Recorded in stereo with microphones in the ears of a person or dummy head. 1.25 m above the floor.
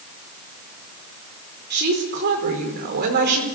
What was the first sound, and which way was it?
A woman speaking, 50° right (ahead or behind).